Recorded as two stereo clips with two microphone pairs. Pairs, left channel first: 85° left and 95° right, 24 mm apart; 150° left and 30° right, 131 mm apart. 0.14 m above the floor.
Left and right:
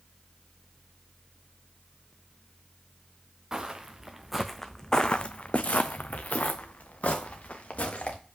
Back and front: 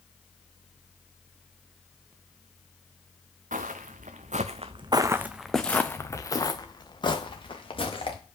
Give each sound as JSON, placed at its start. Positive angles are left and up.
{"t": 3.5, "sound": "footsteps", "azimuth_deg": -30, "distance_m": 1.0}